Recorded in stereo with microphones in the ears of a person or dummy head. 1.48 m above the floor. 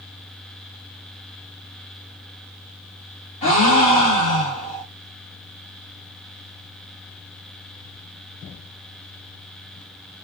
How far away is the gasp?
About 1.5 m.